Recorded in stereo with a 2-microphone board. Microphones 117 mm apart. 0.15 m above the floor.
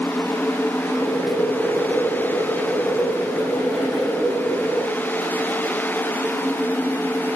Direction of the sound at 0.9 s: 5° right (ahead or behind).